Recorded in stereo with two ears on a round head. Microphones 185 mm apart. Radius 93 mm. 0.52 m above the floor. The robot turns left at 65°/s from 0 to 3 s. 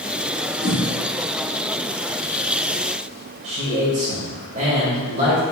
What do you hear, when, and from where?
0.6 s a whoosh: 50° left (ahead or behind), 1.3 m; by 0.8 s 60° left (ahead or behind), 1.3 m
3.4 s a man speaking: 35° right (ahead or behind), 1.9 m